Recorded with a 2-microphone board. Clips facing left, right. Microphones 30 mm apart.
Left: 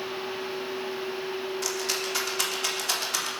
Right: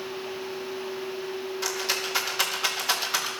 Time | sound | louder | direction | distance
1.6 | a rattle | right 4 dB | 10° right (ahead or behind) | 3 m